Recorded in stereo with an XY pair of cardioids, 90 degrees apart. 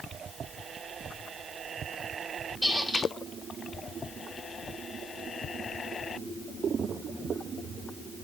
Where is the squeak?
15° left, 3 m.